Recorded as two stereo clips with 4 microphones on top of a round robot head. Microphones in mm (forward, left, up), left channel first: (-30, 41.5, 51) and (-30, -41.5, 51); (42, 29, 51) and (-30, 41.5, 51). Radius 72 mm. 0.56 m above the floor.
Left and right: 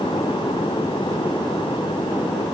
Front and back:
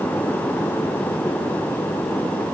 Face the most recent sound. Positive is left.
No sound to turn to.